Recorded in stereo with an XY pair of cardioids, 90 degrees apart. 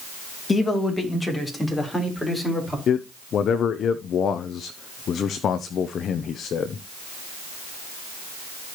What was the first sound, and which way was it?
A man speaking, 30° left.